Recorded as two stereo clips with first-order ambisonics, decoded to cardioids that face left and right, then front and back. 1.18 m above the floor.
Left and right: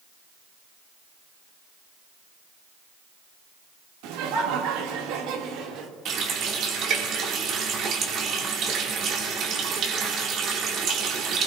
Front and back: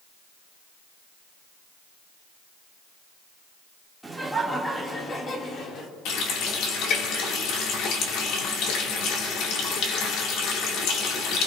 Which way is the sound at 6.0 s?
40° right.